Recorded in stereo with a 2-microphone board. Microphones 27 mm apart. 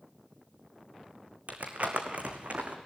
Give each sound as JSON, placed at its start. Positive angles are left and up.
{"t": 1.5, "sound": "crumpling", "side_deg": -50, "distance_m": 2.5}